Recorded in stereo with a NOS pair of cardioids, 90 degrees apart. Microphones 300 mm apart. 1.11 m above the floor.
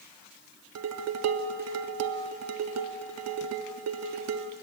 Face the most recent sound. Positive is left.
turn(degrees=-55)